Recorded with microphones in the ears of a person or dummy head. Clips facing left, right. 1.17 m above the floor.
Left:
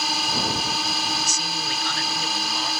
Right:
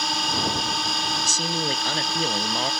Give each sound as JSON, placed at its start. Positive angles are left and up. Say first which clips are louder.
{"t": 0.0, "sound": "a drone", "louder": "even", "side_deg": 0}
{"t": 1.2, "sound": "a man speaking", "louder": "right 4 dB", "side_deg": -35}